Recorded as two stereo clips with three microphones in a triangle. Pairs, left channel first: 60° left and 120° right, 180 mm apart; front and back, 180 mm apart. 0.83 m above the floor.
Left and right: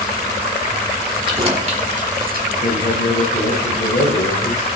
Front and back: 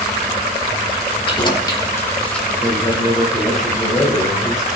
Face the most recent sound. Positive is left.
turn(degrees=90)